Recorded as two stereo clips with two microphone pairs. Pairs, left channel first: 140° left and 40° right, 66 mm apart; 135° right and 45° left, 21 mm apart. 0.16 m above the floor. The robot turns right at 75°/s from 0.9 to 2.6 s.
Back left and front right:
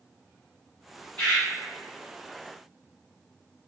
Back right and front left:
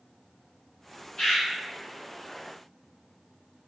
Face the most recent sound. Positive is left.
turn(degrees=-55)